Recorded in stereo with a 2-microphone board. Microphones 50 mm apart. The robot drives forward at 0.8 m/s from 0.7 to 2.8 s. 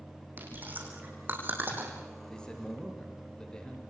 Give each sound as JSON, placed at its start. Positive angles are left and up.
{"t": 0.4, "sound": "chewing", "side_deg": -35, "distance_m": 7.0}
{"t": 2.3, "sound": "a man speaking", "side_deg": 15, "distance_m": 7.0}